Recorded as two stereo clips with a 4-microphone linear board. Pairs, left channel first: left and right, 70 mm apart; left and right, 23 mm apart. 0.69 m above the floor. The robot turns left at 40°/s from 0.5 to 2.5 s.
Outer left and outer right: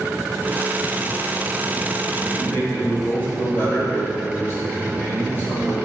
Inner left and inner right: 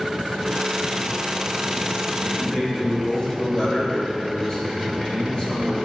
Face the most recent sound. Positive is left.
turn(degrees=30)  # may be behind; listen again after turning